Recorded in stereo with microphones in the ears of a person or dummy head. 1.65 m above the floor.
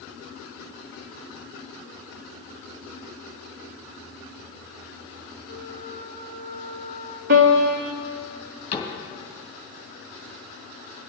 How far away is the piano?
About 2 m.